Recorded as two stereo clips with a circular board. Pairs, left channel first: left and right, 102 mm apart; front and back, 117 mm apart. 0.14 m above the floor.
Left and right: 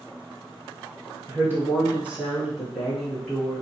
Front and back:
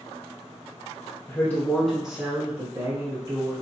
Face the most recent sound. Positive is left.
turn(degrees=165)